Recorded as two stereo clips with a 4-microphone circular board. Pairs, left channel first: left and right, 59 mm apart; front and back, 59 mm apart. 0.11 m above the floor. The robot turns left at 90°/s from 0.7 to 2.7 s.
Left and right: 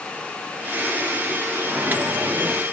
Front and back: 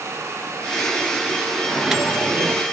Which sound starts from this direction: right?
A microwave, at 1.7 s.